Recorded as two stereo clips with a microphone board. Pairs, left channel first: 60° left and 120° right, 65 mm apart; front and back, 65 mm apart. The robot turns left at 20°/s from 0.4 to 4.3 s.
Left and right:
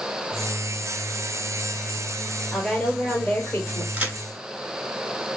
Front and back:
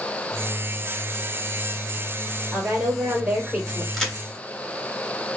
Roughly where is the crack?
Right.